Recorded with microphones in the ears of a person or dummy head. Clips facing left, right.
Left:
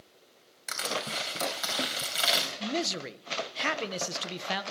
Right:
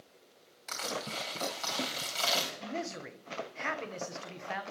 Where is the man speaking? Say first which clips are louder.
Left 6 dB; 50° left (ahead or behind), 0.9 m.